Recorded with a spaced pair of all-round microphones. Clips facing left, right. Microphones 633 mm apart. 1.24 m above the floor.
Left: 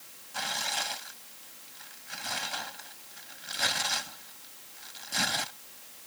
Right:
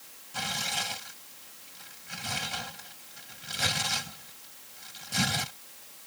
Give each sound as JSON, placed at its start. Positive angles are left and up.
{"t": 0.3, "sound": "tearing paper", "side_deg": -55}